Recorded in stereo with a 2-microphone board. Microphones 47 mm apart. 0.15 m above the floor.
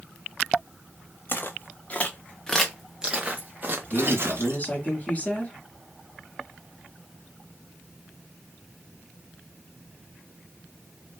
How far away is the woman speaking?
About 1.3 m.